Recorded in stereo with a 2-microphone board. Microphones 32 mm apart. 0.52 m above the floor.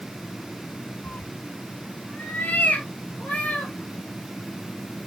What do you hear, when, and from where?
1.0 s a cat meowing: 65° left (ahead or behind), 0.7 m; by 3.7 s 55° left (ahead or behind), 3 m